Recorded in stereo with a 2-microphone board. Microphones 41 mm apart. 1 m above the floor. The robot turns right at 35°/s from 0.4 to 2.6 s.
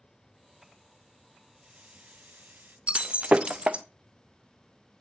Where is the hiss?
145° right, 1.0 m; by 2.8 s 105° right, 1.0 m.